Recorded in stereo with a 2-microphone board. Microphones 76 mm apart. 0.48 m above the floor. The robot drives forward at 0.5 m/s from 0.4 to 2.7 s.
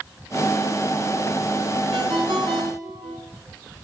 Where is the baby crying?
No baby crying in this recording.